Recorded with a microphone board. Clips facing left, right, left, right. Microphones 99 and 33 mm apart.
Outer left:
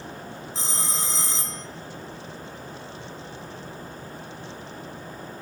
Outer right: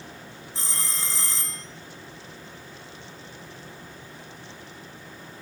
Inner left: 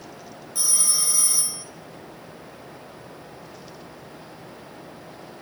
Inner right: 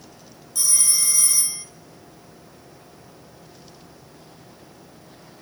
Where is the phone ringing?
20° left (ahead or behind), 1.3 m.